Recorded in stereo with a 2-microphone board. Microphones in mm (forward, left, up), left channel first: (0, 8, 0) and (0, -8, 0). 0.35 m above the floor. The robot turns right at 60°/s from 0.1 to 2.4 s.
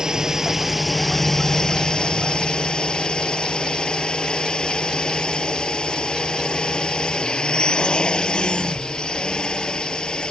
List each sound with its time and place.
0.0 s a drone: 45° right; by 10.3 s 95° left